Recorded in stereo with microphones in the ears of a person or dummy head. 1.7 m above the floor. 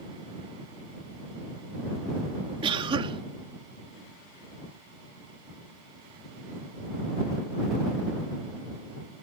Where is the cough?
25° right (ahead or behind).